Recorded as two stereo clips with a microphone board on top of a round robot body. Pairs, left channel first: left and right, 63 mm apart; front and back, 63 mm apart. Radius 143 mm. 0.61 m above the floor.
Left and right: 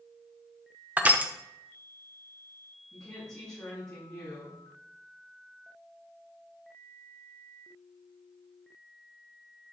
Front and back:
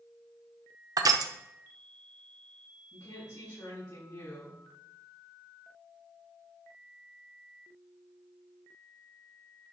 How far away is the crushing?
About 0.8 m.